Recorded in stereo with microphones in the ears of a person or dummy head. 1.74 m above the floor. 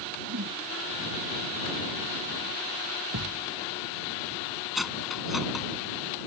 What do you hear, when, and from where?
0.3 s a whoosh: 70° right (ahead or behind)
3.1 s a thud: 80° right
4.8 s cutlery clinking: centre (ahead or behind)